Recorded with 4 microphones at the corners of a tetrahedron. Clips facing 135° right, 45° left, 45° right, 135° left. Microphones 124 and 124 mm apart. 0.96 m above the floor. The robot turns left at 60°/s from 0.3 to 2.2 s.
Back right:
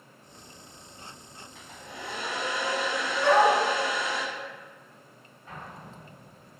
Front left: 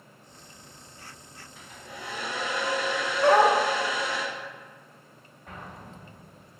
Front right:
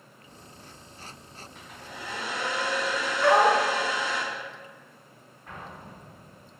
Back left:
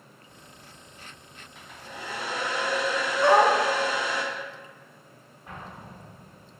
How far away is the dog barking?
About 0.5 m.